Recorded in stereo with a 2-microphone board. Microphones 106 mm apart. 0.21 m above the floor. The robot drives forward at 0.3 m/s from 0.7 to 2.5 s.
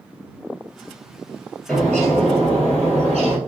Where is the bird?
10° left (ahead or behind), 1.0 m; by 3.4 s 5° left (ahead or behind), 1.2 m.